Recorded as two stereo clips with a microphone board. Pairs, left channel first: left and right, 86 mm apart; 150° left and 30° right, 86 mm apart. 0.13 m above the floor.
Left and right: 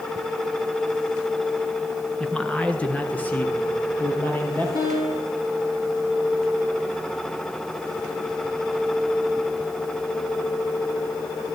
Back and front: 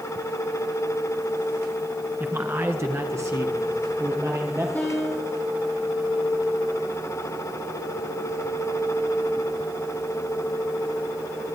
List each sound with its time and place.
2.2 s a man speaking: 15° left, 1.5 m; by 4.7 s 25° left, 4.5 m
4.8 s a piano: 80° left, 7 m